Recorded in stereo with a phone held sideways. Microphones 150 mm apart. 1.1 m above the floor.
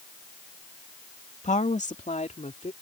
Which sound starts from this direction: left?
A woman speaking, at 1.4 s.